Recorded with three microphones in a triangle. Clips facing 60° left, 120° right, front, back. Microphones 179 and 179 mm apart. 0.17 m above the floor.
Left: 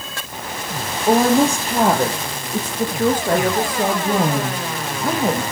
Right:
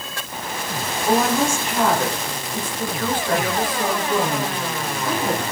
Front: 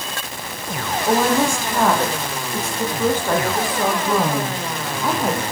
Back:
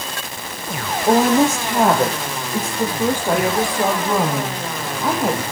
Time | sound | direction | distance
1.1 | a woman speaking | 115° left | 5 m